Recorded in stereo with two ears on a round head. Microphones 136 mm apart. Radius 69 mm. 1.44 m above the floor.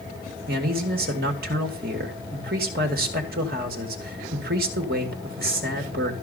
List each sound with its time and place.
0.5 s a man speaking: 70° right (ahead or behind), 2.5 m